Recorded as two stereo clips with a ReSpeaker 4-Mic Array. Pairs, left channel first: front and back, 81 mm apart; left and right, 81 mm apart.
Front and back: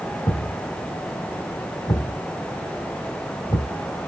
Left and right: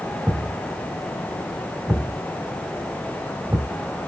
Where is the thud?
20° right, 2.5 m.